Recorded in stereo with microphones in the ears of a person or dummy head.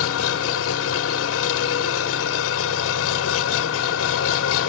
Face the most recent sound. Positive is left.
turn(degrees=80)